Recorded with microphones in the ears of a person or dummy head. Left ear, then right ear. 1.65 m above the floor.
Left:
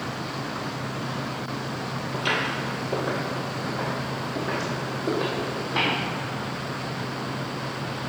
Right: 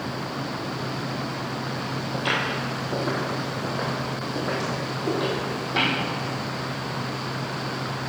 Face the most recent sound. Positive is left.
turn(degrees=-10)  # may be behind; listen again after turning